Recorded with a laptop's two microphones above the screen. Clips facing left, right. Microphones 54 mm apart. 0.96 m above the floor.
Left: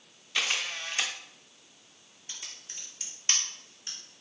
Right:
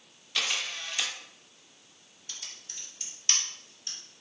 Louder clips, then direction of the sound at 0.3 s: Left 1 dB; 25° left (ahead or behind).